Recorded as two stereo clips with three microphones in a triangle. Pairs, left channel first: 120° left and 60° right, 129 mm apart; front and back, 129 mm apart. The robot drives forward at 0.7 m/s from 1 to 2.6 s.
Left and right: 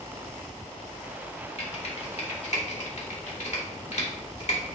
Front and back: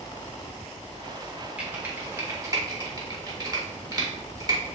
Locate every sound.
1.6 s typing on a keyboard: 100° left, 1.7 m; by 4.7 s 125° left, 2.0 m